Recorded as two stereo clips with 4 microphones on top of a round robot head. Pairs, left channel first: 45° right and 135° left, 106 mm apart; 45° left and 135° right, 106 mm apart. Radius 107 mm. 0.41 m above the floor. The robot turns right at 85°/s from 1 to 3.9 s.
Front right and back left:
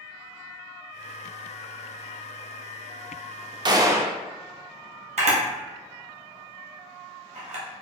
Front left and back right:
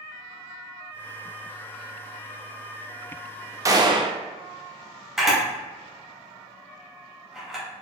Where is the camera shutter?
140° left, 1.2 m.